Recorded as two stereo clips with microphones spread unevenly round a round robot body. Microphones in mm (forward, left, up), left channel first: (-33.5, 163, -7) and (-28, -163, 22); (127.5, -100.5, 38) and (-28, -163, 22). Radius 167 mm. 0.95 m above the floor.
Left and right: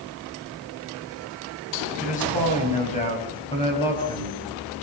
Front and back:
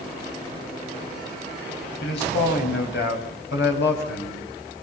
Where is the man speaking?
25° left, 6 m; by 4.8 s 10° left, 7 m.